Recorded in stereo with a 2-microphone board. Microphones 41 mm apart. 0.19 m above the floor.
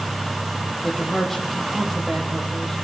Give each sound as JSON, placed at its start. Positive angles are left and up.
{"t": 0.8, "sound": "a man speaking", "side_deg": 0, "distance_m": 6.0}